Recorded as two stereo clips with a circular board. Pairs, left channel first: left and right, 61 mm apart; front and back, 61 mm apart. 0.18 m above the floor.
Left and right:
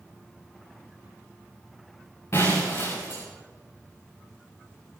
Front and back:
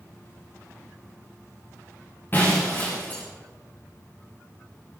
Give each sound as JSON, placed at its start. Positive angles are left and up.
{"t": 2.3, "sound": "breaking glass", "azimuth_deg": 50, "distance_m": 6.5}